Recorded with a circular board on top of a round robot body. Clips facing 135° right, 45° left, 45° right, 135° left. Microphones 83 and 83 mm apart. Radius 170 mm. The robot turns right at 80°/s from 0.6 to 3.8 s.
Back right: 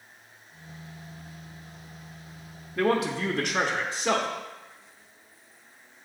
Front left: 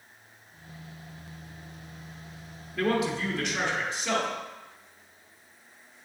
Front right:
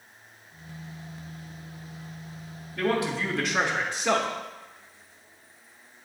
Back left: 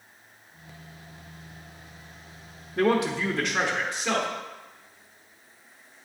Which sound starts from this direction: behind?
A man speaking, at 2.8 s.